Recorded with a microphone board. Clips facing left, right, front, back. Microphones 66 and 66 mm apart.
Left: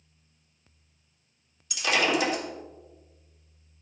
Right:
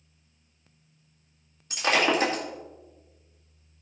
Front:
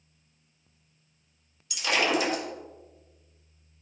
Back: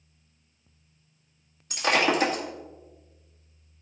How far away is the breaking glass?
About 1.9 m.